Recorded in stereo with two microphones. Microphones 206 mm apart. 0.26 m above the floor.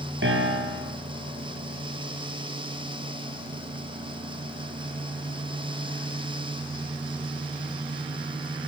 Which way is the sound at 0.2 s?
65° right (ahead or behind).